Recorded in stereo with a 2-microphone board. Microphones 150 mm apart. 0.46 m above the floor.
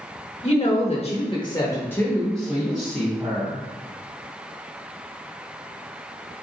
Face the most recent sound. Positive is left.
turn(degrees=-10)  # may be behind; listen again after turning